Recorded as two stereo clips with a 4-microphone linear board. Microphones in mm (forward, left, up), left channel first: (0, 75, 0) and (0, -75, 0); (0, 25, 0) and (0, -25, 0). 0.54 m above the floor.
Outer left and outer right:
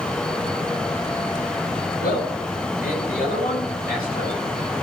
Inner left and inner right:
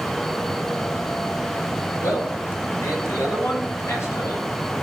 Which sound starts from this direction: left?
A man speaking, at 2.0 s.